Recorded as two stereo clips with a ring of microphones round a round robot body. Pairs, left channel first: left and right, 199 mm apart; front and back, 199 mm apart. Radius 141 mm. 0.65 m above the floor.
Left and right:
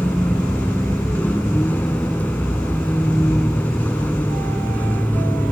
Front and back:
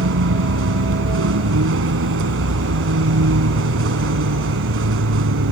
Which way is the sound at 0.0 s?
175° left.